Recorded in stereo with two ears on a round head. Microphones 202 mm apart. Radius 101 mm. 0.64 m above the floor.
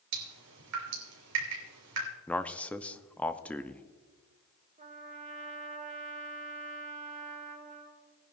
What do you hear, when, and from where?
0.1 s dripping: 75° right (ahead or behind), 3.5 m
2.3 s a man speaking: 5° left (ahead or behind), 0.5 m
4.8 s a trumpet: 30° right (ahead or behind), 1.5 m